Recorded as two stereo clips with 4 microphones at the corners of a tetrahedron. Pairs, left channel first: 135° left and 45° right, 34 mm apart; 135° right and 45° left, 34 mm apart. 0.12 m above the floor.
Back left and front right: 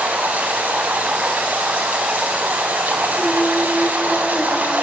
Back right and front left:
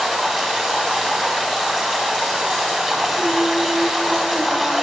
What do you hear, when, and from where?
0.0 s running water: 55° right, 5 m
3.2 s singing: 100° left, 1.2 m